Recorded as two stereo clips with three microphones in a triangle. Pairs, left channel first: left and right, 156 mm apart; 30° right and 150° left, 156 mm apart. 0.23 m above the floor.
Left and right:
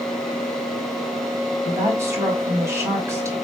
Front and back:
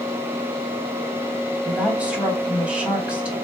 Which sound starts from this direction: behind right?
A woman speaking, at 1.6 s.